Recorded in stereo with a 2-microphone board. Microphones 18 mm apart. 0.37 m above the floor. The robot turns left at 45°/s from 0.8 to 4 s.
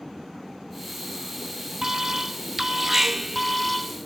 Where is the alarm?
25° right (ahead or behind), 0.7 m; by 4.0 s centre (ahead or behind), 0.7 m.